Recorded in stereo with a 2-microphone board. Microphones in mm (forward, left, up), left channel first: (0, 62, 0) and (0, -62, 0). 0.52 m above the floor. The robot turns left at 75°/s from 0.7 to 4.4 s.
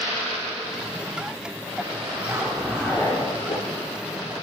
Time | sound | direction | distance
2.1 | a zipper | 140° right | 10 m